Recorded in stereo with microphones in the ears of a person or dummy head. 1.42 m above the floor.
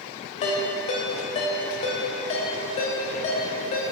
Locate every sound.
0.4 s a ringtone: 35° left (ahead or behind), 2 m